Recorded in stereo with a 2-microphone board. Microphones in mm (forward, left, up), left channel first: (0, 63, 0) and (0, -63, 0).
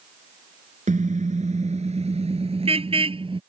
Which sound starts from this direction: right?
A car horn, at 0.9 s.